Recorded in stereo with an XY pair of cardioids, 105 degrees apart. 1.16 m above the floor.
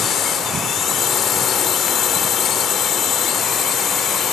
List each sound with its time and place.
0.0 s a drone: 65° left